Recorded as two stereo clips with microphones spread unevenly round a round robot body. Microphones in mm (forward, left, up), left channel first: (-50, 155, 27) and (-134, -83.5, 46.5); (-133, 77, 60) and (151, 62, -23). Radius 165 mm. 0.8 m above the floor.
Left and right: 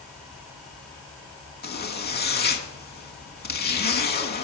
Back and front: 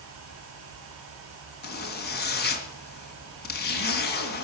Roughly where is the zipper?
Behind left.